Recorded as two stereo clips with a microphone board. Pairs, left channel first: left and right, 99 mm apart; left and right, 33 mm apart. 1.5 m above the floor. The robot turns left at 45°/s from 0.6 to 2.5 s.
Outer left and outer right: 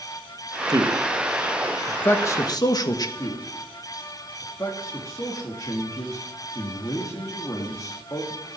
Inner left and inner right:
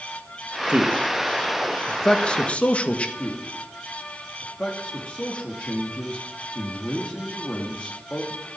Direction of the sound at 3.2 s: 35° left (ahead or behind).